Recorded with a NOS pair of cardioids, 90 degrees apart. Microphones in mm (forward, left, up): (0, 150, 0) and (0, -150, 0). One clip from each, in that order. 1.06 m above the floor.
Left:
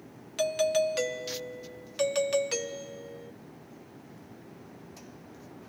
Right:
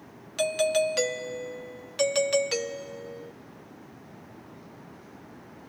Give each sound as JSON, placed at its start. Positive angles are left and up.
{"t": 0.4, "sound": "a doorbell", "azimuth_deg": -20}